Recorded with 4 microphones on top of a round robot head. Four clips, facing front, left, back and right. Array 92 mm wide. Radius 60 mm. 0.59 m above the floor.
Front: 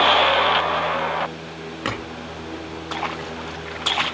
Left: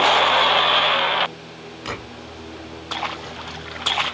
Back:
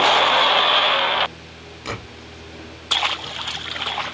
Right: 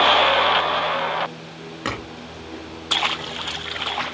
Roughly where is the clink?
Ahead right.